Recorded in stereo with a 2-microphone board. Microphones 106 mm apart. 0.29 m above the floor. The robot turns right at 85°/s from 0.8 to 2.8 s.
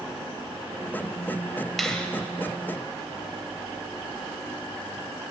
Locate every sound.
1.8 s a finger snap: centre (ahead or behind), 1.0 m; by 2.1 s 15° left (ahead or behind), 1.0 m